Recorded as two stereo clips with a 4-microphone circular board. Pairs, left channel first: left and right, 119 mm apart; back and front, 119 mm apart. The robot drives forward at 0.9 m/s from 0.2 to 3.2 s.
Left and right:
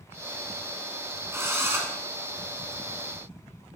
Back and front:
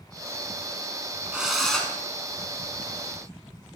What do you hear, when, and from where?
1.3 s a drill: 70° right, 1.7 m; by 1.9 s 115° right, 1.7 m